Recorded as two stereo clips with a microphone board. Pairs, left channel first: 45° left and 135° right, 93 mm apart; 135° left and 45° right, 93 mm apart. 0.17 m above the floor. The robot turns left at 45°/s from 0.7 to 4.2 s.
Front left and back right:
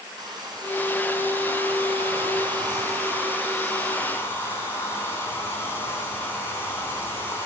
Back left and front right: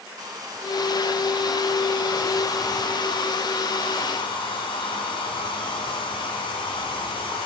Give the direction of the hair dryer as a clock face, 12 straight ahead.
3 o'clock.